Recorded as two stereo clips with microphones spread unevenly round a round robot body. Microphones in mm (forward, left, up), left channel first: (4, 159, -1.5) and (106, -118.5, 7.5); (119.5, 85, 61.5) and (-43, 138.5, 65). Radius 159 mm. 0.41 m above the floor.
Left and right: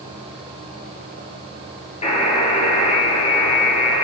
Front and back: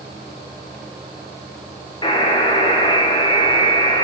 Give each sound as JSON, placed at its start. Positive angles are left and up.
{"t": 2.0, "sound": "a buzzer", "azimuth_deg": 40, "distance_m": 3.0}